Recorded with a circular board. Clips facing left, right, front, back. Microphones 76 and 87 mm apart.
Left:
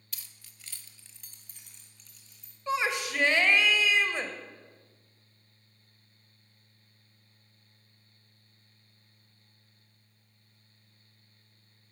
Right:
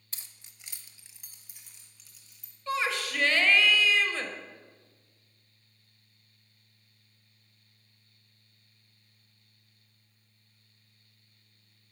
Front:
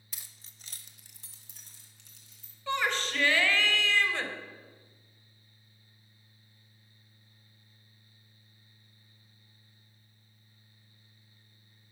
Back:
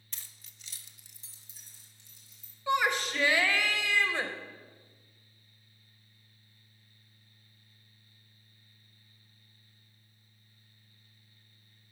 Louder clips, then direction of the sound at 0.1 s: Even, even; 75° right.